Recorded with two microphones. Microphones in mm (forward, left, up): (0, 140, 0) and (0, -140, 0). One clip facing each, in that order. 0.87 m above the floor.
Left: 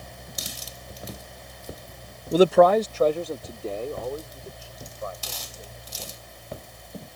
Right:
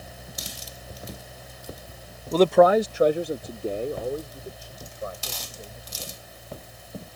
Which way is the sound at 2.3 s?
15° left (ahead or behind).